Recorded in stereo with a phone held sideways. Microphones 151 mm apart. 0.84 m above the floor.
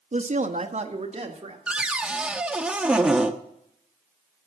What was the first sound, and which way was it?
A woman speaking, 50° right (ahead or behind).